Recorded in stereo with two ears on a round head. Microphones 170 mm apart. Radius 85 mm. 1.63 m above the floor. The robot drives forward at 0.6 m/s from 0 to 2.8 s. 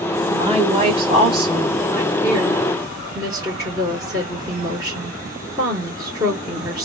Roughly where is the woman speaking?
Right.